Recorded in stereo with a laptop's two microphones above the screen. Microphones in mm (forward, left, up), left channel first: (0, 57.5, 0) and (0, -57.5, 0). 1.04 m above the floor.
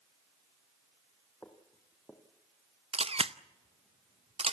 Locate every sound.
1.4 s footsteps: 15° left (ahead or behind), 2.5 m
2.9 s a camera shutter: 55° right (ahead or behind), 0.6 m